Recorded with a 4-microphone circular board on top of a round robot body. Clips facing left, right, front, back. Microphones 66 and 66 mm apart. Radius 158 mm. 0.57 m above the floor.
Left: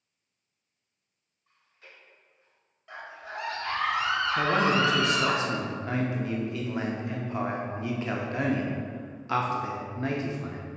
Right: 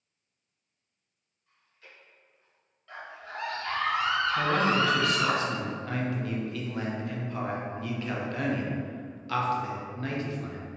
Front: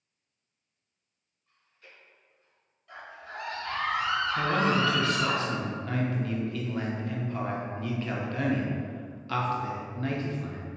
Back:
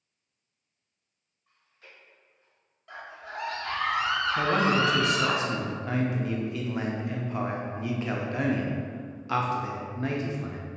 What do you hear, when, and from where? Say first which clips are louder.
1.5 s chewing: left 1 dB, back 2 dB; 155° left, 1.7 m
2.9 s a scream: left 1 dB, back 2 dB; 165° left, 1.4 m
4.4 s a man speaking: left 3 dB, back 2 dB; 130° left, 0.7 m